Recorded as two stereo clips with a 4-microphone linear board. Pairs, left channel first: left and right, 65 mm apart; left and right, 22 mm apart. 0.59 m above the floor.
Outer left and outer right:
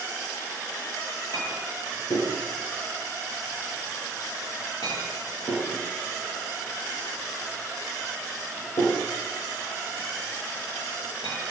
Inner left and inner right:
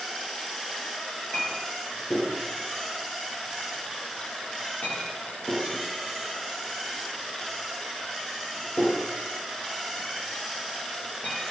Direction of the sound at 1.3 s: 70° left (ahead or behind).